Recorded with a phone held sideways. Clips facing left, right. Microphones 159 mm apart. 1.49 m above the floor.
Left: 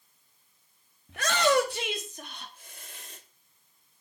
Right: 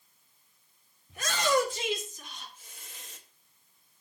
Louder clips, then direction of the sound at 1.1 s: Left 3 dB; 70° left (ahead or behind).